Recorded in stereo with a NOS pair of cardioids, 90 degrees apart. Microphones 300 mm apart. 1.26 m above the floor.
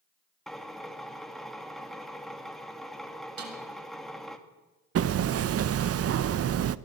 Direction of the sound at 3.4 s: 70° right.